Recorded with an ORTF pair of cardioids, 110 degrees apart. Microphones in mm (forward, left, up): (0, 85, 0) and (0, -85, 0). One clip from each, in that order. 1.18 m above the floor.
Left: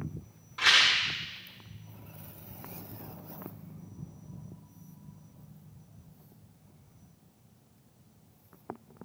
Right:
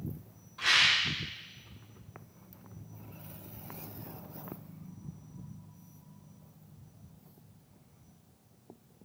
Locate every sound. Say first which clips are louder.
0.6 s a rattle: left 2 dB; 65° left, 2 m